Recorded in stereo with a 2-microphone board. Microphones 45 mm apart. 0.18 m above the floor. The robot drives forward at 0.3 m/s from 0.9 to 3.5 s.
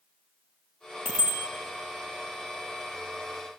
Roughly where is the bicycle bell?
Right.